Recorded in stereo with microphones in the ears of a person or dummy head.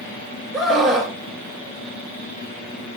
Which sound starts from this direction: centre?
A scream, at 0.5 s.